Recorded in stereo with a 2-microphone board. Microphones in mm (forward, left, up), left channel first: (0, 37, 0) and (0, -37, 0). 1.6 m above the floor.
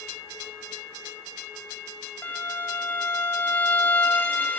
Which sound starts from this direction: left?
A violin, at 2.2 s.